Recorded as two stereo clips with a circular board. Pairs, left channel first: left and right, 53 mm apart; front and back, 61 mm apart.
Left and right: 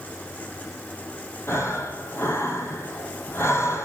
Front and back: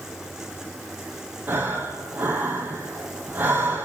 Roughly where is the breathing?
Behind left.